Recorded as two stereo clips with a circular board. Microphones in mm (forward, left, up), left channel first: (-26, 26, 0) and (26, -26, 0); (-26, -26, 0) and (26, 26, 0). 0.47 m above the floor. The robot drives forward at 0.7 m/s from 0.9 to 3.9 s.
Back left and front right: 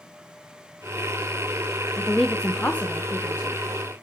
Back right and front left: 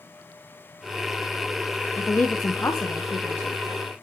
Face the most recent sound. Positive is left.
turn(degrees=-170)